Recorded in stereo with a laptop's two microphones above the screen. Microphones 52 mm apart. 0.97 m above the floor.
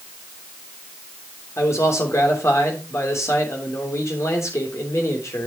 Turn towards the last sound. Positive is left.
turn(degrees=65)  # may be behind; listen again after turning